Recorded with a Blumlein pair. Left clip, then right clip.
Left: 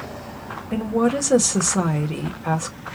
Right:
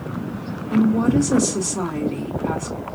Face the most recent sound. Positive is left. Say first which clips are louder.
# right 2 dB
turn(degrees=25)